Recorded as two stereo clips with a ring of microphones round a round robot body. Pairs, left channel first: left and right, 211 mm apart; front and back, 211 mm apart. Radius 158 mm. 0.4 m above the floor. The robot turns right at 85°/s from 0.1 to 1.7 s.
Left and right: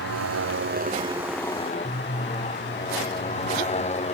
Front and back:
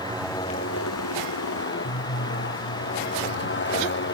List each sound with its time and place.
0.0 s a motorcycle: 105° right; by 4.2 s 30° left